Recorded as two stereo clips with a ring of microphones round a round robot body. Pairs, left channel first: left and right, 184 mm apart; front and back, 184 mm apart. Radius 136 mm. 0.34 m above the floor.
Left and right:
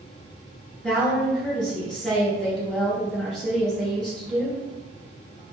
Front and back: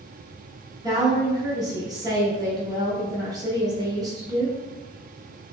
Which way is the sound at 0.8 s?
170° left.